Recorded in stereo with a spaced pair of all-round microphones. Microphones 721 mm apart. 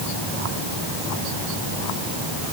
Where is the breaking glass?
No breaking glass in this recording.